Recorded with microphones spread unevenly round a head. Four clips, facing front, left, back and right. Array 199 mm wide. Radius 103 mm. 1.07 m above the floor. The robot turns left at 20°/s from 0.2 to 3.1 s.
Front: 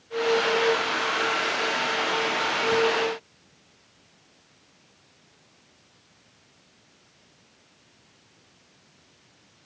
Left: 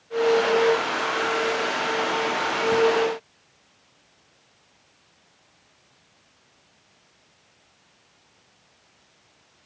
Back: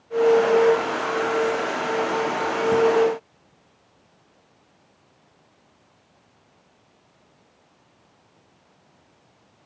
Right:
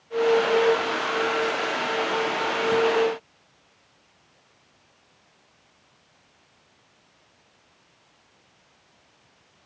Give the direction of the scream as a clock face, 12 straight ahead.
I don't hear a scream.